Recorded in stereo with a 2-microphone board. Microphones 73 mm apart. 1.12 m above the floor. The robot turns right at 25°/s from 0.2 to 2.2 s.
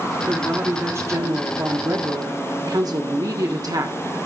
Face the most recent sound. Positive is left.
turn(degrees=-105)